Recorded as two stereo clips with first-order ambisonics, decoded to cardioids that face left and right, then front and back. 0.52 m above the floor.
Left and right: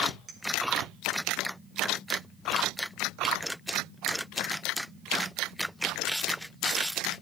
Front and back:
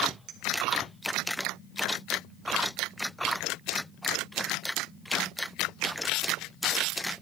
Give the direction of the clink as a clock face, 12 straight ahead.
5 o'clock.